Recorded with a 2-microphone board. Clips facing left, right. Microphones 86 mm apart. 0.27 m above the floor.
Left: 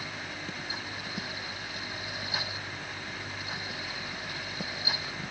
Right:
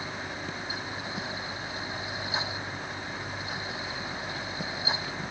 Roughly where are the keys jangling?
No keys jangling in this recording.